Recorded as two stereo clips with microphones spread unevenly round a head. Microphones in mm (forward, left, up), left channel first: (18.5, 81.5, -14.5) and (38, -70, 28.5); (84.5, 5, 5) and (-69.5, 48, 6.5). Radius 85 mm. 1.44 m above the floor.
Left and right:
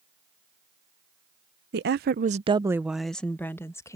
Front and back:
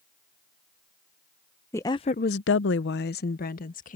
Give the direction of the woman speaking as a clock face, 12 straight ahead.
3 o'clock.